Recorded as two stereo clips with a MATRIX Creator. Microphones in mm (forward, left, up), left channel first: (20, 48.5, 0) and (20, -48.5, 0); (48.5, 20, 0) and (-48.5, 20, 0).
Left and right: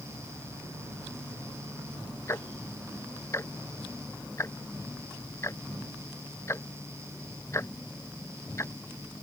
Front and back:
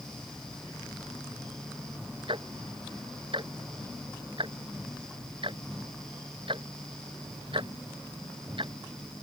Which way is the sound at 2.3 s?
150° left.